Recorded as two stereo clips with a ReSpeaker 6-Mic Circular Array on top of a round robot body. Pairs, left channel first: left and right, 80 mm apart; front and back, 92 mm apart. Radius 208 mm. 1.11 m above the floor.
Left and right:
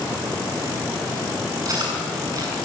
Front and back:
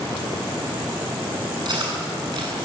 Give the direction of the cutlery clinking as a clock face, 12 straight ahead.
5 o'clock.